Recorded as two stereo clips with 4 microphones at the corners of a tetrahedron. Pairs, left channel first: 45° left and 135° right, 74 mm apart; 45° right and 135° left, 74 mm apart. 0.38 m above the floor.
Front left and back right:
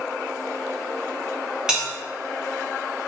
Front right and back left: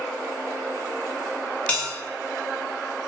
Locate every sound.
1.7 s a bell: 75° right, 1.1 m